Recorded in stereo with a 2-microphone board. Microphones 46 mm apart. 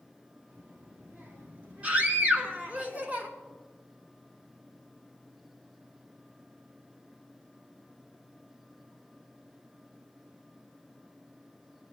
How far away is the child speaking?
About 3.5 m.